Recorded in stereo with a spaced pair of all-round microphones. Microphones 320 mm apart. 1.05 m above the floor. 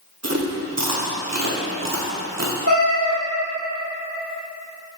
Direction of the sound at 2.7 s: 45° right (ahead or behind).